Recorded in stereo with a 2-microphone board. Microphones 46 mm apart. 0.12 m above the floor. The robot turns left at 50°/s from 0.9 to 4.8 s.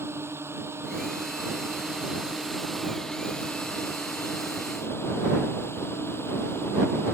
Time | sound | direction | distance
0.0 | a drone | 85° right | ?